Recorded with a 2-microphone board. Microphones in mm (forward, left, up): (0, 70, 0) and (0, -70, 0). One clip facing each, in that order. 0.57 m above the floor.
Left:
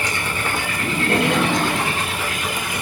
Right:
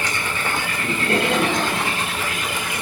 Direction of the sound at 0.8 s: 70° left (ahead or behind).